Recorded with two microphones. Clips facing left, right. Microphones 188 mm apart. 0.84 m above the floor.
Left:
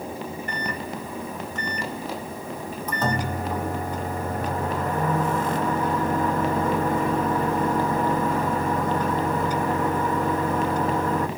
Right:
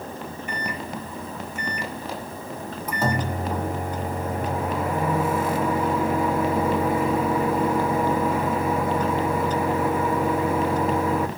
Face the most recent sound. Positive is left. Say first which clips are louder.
# even
turn(degrees=-10)  # may be behind; listen again after turning